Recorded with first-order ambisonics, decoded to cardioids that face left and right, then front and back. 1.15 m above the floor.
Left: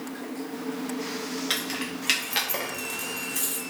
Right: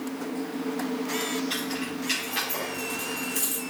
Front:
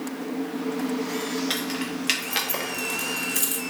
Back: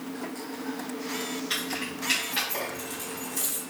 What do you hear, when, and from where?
1.5 s keys jangling: 50° left, 1.5 m; by 3.6 s 10° right, 1.0 m